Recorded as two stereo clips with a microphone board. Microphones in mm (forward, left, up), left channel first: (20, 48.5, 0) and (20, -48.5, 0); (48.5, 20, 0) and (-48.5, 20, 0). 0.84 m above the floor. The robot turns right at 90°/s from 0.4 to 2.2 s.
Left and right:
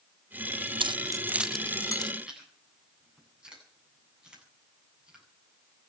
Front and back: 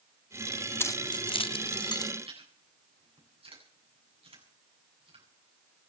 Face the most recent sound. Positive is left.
turn(degrees=-170)